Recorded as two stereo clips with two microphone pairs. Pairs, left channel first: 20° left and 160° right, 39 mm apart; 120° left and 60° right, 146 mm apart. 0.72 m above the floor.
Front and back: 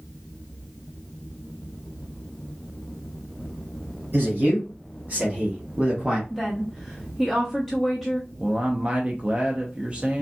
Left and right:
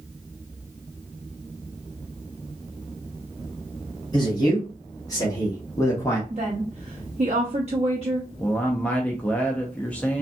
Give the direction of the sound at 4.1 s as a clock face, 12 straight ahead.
6 o'clock.